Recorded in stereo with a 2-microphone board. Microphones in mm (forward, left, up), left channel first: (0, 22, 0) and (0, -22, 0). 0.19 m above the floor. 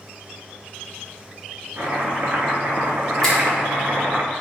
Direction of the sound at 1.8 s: 45° right (ahead or behind).